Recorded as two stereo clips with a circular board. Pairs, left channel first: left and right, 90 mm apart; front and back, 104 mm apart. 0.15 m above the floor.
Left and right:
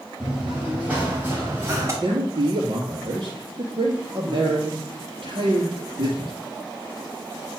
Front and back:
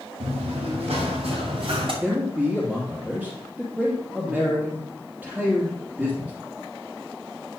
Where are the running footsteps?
175° right, 3 m; by 1.9 s 150° right, 3.5 m.